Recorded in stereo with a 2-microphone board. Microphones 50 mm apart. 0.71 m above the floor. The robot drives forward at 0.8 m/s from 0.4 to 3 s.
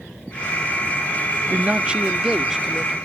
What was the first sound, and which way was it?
A man speaking, 30° right (ahead or behind).